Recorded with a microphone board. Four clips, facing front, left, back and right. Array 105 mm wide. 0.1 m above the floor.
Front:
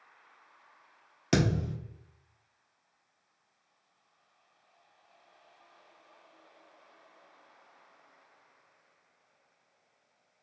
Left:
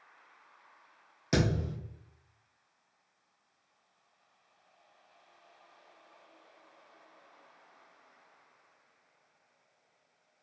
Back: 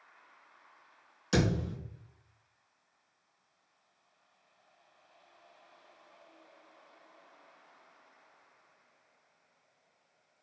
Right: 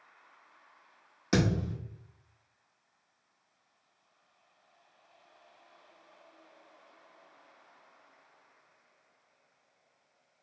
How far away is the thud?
About 1.1 m.